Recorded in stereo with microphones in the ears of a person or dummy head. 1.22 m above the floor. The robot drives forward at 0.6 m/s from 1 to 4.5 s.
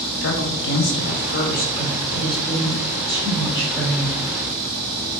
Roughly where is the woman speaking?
Left.